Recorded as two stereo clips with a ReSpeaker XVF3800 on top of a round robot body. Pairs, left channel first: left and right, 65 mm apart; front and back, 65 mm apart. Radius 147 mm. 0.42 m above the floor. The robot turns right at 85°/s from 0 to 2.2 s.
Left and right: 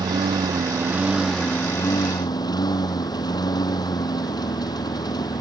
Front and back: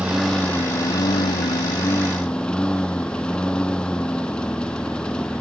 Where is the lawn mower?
110° right; by 5.4 s 75° left.